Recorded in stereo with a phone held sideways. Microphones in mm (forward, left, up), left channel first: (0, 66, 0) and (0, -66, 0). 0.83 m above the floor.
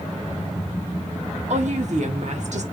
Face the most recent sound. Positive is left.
turn(degrees=-65)  # may be behind; listen again after turning